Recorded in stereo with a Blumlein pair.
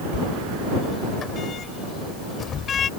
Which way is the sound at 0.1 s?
20° left.